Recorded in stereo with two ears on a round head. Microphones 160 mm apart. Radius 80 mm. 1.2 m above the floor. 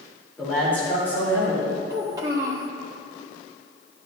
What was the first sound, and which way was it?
A man speaking, 5° left (ahead or behind).